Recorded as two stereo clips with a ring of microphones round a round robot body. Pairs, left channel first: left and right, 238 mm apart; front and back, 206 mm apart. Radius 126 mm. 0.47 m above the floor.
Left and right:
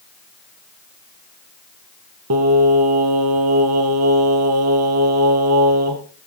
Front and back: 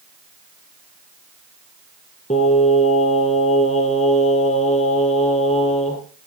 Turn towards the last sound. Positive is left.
turn(degrees=-65)